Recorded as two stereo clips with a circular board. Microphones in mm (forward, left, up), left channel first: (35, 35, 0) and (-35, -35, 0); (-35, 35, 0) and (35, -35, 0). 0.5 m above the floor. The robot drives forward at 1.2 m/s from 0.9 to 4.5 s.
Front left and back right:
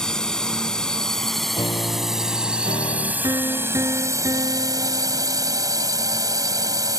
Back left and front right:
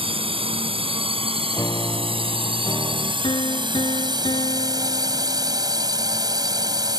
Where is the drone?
40° right; by 7.0 s 85° right.